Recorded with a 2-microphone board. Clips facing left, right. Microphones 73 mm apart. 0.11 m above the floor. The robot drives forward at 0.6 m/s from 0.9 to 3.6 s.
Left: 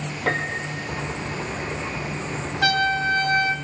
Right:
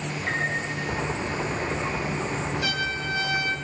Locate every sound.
0.3 s a piano: 65° left (ahead or behind), 2.5 m
2.6 s a trumpet: 65° left (ahead or behind), 0.9 m; by 3.5 s 40° left (ahead or behind), 1.2 m